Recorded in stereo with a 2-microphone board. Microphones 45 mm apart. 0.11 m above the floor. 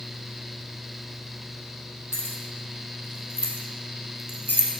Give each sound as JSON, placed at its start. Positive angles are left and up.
{"t": 2.1, "sound": "keys jangling", "side_deg": 55, "distance_m": 3.0}